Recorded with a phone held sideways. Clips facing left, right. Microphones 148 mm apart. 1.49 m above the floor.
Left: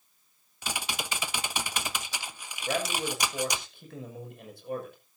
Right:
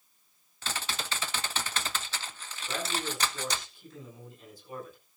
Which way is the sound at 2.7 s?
65° left (ahead or behind).